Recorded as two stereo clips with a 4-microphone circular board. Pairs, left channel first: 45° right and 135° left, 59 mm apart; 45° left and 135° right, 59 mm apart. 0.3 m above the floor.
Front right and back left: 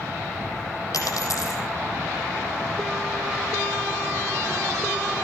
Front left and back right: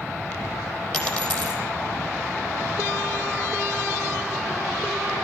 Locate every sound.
0.9 s a dropped coin: 25° right, 4 m